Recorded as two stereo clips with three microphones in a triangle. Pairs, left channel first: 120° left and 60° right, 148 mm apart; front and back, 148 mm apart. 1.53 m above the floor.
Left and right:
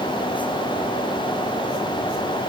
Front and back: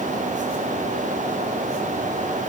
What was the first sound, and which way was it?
Only background noise.